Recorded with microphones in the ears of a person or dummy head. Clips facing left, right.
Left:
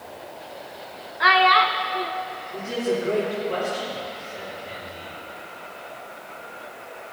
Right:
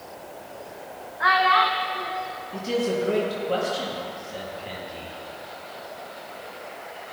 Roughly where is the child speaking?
Left.